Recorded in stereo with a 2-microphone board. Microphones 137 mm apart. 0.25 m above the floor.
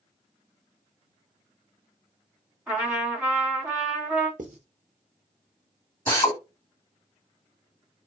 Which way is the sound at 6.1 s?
15° left (ahead or behind).